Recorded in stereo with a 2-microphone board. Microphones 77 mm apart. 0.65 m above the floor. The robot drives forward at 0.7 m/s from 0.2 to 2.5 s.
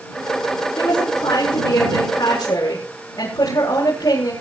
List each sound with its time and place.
0.8 s a woman speaking: 60° left (ahead or behind), 9.5 m; by 4.3 s 65° left (ahead or behind), 8.5 m